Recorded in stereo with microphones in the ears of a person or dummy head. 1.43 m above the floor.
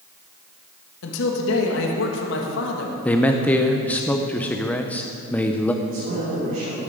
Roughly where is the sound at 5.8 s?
Right.